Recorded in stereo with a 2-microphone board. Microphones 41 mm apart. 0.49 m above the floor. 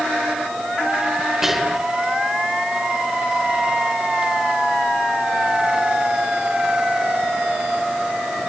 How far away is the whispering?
About 1.4 m.